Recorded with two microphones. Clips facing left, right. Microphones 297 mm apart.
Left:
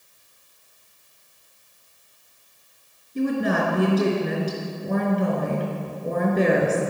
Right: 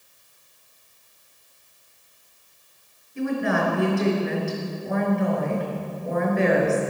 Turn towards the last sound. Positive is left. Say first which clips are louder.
# left 2 dB
turn(degrees=40)  # may be behind; listen again after turning